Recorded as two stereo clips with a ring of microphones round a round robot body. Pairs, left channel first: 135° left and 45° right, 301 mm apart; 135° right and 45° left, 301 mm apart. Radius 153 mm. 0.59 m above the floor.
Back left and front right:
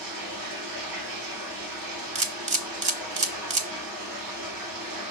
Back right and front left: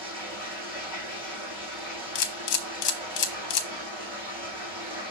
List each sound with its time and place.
0.0 s running water: 30° right, 5 m
2.1 s a camera shutter: 115° right, 1.2 m